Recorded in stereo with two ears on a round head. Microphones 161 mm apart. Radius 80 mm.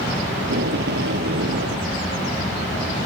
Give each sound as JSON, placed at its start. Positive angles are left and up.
{"t": 0.4, "sound": "tape being pulled", "side_deg": -65}